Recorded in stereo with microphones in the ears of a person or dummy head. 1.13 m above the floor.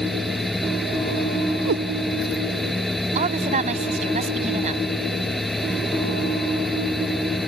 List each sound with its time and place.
0.0 s a fan: 5° right (ahead or behind)
1.7 s a cat meowing: 70° right (ahead or behind)
3.1 s a woman speaking: 40° right (ahead or behind)